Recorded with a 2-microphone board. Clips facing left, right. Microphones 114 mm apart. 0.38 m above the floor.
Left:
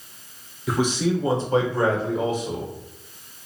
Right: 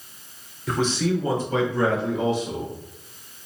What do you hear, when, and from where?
0.7 s a man speaking: 5° left (ahead or behind), 0.8 m; by 2.7 s 50° left (ahead or behind), 1.5 m